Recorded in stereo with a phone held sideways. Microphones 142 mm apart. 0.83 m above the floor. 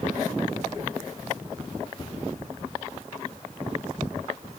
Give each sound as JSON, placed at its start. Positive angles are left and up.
{"t": 2.0, "sound": "a cupboard door", "side_deg": 35, "distance_m": 4.0}